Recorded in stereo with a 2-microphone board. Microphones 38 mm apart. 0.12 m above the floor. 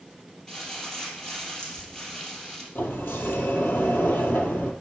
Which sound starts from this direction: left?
A sliding door, at 2.8 s.